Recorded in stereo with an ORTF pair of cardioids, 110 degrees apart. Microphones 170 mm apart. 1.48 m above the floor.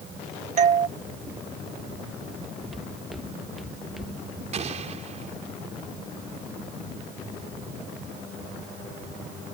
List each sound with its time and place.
0.6 s a doorbell: 45° right
2.7 s footsteps: straight ahead
4.5 s an explosion: 40° right